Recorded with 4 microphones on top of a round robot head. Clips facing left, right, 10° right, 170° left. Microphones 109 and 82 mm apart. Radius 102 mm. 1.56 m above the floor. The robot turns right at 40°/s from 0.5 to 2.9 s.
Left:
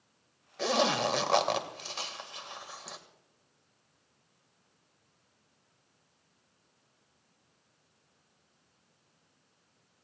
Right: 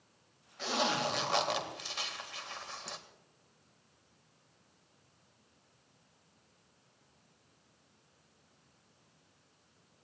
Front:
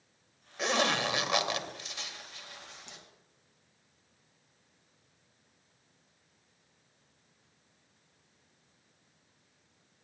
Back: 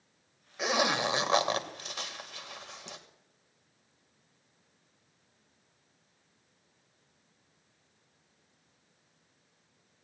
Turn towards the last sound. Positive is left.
turn(degrees=180)